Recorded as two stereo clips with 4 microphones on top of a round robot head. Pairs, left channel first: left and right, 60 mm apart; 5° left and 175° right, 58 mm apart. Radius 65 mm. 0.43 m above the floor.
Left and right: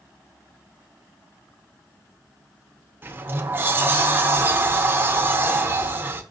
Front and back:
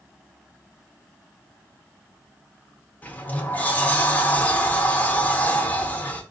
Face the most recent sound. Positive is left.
turn(degrees=-45)